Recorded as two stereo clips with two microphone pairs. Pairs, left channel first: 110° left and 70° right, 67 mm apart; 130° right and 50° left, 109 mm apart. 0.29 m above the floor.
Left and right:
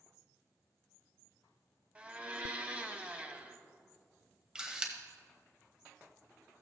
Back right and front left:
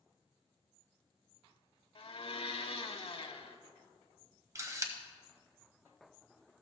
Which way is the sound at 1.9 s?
135° right.